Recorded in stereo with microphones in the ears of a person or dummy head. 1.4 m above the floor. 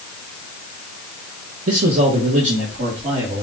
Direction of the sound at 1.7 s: 45° right (ahead or behind).